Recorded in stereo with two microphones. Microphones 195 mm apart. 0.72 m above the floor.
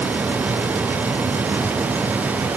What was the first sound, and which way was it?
Only background noise.